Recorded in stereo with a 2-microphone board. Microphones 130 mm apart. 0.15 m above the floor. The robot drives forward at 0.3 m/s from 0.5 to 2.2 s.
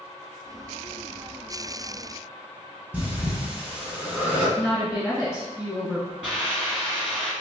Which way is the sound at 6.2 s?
5° right (ahead or behind).